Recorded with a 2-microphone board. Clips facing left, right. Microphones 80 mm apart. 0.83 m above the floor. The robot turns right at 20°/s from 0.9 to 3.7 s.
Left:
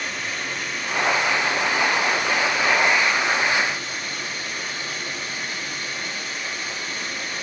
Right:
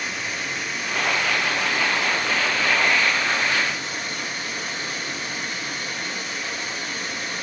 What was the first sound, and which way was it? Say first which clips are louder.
Running water: even; 175° right.